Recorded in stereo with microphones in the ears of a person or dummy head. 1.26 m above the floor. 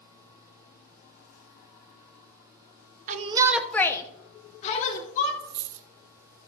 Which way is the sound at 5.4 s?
60° right (ahead or behind).